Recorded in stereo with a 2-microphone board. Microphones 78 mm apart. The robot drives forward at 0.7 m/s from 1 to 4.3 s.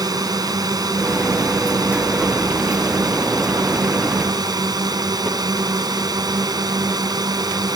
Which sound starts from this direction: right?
A drone, at 0.0 s.